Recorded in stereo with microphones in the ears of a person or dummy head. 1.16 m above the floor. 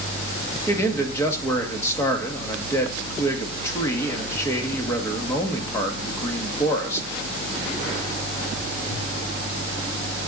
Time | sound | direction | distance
0.7 | a man speaking | 15° left (ahead or behind) | 1.7 m